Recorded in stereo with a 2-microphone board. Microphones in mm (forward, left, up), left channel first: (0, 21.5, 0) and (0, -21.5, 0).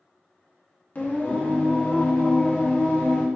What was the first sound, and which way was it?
Singing, 40° left (ahead or behind).